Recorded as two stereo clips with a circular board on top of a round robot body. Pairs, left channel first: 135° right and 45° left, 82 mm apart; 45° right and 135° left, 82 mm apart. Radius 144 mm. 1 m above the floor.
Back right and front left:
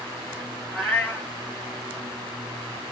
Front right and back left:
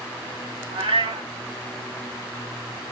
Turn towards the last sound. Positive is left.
turn(degrees=145)